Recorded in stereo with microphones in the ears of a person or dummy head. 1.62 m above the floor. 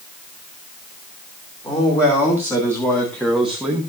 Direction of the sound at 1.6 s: 10° left (ahead or behind).